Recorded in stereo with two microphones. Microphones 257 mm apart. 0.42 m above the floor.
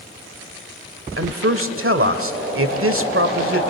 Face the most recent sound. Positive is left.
turn(degrees=-55)  # may be behind; listen again after turning